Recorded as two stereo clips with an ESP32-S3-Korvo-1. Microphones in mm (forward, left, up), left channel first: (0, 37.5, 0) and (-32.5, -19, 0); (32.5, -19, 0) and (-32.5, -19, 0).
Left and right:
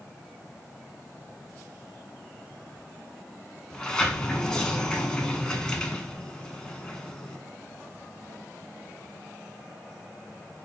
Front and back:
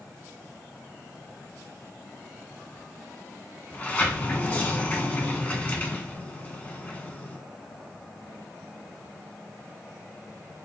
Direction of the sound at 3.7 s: Straight ahead.